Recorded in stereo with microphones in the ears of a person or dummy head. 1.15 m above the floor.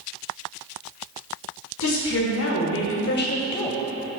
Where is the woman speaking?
75° left (ahead or behind), 2 m; by 3.8 s 5° left (ahead or behind), 0.7 m.